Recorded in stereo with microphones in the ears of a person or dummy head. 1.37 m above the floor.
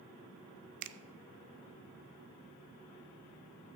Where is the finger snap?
60° right (ahead or behind), 0.7 m.